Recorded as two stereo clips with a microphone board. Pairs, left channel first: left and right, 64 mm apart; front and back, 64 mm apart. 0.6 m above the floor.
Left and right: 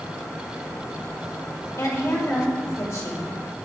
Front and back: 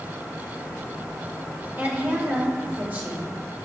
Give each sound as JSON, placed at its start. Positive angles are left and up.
{"t": 1.8, "sound": "a woman speaking", "azimuth_deg": 120, "distance_m": 1.9}